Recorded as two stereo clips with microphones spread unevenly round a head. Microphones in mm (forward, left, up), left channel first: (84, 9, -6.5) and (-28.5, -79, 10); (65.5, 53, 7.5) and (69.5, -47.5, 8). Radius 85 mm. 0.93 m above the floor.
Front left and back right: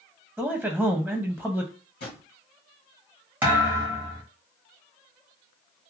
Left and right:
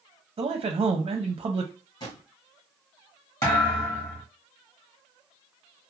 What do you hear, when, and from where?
0.4 s a man speaking: 55° right, 0.5 m
2.0 s a drawer: 50° left, 1.7 m
3.4 s a thud: 150° left, 0.9 m